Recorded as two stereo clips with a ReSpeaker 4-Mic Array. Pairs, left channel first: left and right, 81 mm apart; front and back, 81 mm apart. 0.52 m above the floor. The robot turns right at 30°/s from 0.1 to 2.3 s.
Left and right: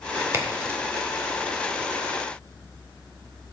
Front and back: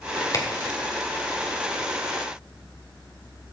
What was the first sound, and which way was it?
A crack, 40° right.